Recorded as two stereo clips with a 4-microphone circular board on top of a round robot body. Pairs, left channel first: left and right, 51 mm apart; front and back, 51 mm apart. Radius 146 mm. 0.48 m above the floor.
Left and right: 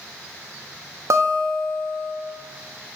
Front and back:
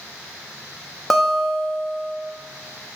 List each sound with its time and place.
1.1 s a guitar: 90° right, 1.9 m